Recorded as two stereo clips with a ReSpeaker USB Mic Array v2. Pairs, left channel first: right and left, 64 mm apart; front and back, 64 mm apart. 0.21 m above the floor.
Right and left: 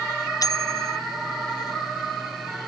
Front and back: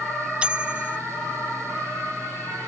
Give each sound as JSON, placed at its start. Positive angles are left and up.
{"t": 0.4, "sound": "a bicycle bell", "azimuth_deg": -105}